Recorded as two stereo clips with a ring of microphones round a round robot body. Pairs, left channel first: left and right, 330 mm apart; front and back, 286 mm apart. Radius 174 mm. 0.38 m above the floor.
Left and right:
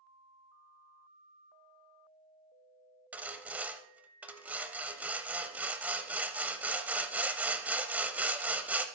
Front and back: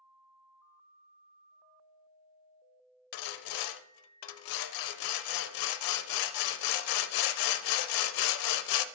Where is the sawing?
5° right, 0.5 m.